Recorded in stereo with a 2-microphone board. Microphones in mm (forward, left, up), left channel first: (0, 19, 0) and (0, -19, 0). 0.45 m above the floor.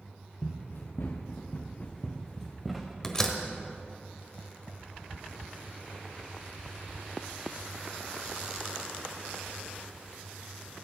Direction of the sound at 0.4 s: 75° left (ahead or behind).